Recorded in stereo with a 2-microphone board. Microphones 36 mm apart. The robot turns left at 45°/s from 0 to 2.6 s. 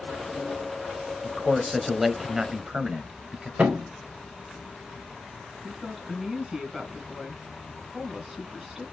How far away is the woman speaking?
About 2 m.